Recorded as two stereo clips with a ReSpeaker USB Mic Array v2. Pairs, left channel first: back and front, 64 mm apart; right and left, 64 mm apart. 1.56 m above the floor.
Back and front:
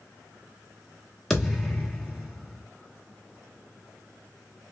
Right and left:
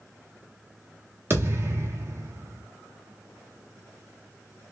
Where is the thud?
95° left, 1.2 m.